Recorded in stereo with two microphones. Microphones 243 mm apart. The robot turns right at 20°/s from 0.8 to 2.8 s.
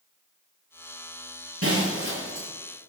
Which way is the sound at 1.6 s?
65° right (ahead or behind).